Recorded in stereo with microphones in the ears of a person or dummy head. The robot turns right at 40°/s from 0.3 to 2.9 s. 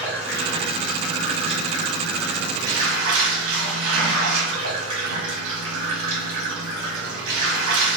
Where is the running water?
165° right, 1.3 m; by 8.0 s 60° right, 1.3 m.